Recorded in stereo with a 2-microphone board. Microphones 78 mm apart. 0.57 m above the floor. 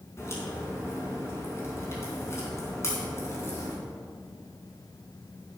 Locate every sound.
0.2 s a crack: 35° left (ahead or behind), 4 m